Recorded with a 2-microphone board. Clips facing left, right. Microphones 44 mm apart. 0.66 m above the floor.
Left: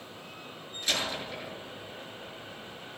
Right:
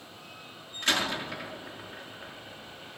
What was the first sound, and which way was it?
A door slam, 70° right (ahead or behind).